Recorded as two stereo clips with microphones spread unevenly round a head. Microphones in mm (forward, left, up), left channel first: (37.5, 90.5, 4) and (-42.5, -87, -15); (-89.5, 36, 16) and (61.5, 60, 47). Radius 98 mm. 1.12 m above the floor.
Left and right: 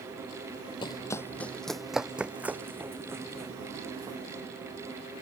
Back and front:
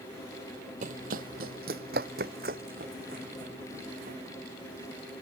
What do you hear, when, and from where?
0.8 s running footsteps: 5° left; by 4.2 s 40° right